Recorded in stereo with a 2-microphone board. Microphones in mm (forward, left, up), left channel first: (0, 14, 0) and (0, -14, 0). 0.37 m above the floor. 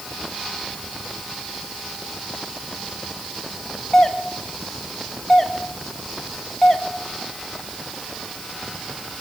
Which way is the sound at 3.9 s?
10° left (ahead or behind).